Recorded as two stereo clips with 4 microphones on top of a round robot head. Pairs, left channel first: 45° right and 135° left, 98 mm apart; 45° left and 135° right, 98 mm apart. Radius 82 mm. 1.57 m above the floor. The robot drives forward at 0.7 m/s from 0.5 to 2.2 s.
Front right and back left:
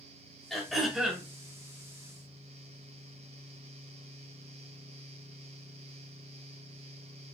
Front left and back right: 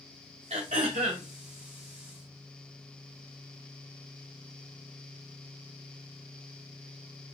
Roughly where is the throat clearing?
Behind right.